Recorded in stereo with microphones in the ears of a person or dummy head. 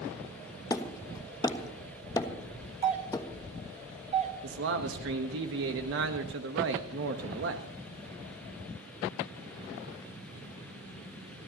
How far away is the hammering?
About 1.3 m.